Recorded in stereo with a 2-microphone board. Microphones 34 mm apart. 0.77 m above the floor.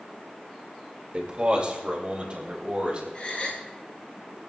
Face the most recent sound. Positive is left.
turn(degrees=40)  # may be behind; listen again after turning